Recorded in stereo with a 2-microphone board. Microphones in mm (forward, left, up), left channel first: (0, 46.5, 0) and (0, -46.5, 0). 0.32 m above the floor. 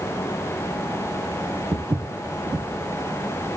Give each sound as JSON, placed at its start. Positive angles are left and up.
{"t": 1.7, "sound": "footsteps", "side_deg": -50, "distance_m": 0.6}